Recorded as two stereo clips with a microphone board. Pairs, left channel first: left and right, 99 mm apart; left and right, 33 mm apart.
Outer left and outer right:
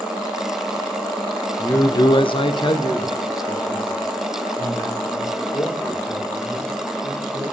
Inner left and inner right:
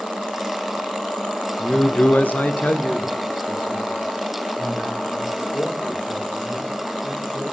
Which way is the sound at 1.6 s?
15° left (ahead or behind).